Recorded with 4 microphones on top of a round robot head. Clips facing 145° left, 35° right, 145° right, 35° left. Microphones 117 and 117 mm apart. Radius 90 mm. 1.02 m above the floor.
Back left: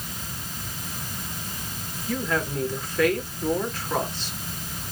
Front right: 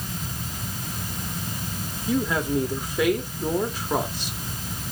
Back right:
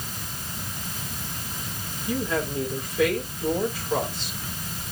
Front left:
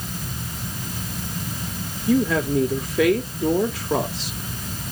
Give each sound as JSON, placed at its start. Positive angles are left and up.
{"t": 2.1, "sound": "a woman speaking", "azimuth_deg": 45, "distance_m": 2.5}